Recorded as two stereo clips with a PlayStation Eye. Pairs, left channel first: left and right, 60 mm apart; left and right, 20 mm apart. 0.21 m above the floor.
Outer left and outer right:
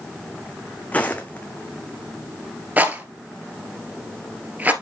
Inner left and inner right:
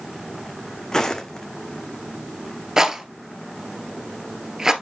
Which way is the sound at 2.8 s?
25° right (ahead or behind).